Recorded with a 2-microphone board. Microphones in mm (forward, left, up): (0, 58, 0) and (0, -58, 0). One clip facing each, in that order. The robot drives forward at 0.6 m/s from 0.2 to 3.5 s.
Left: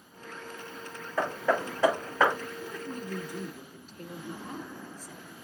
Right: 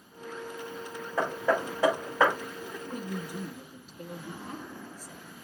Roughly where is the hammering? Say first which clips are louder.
Even; centre.